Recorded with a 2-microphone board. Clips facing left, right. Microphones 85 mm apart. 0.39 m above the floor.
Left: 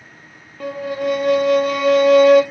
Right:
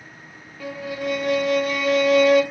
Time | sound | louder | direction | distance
0.6 | a violin | left 6 dB | 50° left (ahead or behind) | 0.7 m